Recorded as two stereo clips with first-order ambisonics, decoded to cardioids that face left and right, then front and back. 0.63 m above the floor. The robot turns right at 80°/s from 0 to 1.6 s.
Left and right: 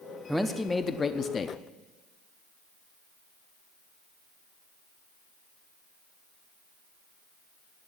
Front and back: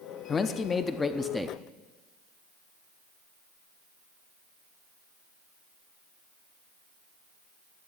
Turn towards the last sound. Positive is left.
turn(degrees=100)